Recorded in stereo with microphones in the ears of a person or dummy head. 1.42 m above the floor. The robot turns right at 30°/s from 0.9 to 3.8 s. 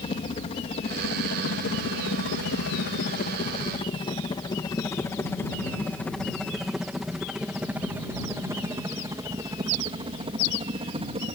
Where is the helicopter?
30° left (ahead or behind); by 11.4 s 25° right (ahead or behind).